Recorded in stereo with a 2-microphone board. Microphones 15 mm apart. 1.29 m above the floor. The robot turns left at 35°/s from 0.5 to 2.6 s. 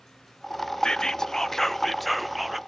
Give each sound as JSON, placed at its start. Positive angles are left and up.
{"t": 0.8, "sound": "whispering", "azimuth_deg": 45, "distance_m": 0.6}